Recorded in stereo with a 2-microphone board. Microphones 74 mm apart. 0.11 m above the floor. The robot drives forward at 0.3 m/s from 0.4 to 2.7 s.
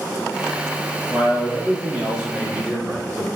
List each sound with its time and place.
1.1 s a man speaking: 15° right (ahead or behind), 1.2 m; by 3.3 s 10° right (ahead or behind), 1.5 m